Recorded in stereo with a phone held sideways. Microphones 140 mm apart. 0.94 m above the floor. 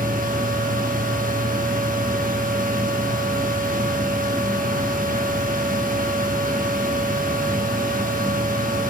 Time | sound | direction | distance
0.0 | a fan | 80° right | 1.0 m